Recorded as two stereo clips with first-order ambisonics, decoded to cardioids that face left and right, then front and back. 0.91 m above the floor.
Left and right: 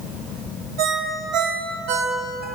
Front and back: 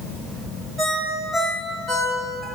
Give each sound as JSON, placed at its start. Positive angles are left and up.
{"t": 0.8, "sound": "a ringtone", "azimuth_deg": -95, "distance_m": 2.5}